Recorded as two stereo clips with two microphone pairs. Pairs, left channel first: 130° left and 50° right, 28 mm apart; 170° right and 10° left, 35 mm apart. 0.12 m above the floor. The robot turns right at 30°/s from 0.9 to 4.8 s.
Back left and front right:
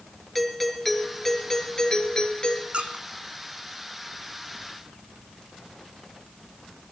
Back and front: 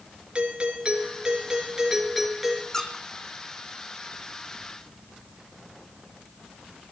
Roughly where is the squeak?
Right.